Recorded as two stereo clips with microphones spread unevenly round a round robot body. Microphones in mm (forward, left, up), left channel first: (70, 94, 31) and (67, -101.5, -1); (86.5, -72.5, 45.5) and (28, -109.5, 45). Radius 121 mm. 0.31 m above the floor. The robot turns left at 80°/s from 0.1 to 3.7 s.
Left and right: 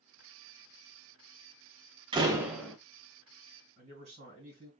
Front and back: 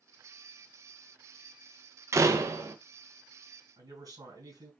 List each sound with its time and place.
2.1 s a door slam: 130° right, 0.7 m; by 2.8 s straight behind, 0.7 m
3.8 s a man speaking: 140° right, 2.5 m